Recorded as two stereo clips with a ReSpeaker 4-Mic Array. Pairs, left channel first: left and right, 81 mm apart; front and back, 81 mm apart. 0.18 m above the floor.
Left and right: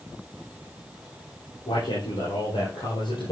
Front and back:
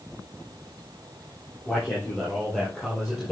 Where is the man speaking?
75° left, 5 m; by 3.3 s 85° left, 4.5 m.